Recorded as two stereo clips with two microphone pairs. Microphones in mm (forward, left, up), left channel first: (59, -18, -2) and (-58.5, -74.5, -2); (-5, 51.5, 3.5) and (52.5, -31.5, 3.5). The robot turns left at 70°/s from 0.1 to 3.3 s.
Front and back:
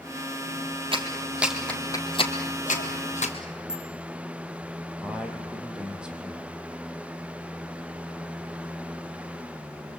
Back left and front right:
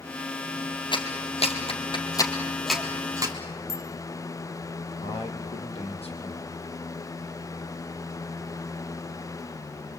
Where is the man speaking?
125° left, 4.5 m.